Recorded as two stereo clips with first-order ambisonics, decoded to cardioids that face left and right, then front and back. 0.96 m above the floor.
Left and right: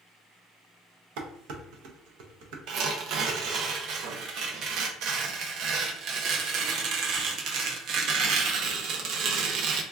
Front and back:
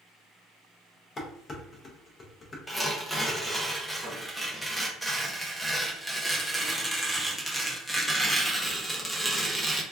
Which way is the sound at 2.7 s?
85° right.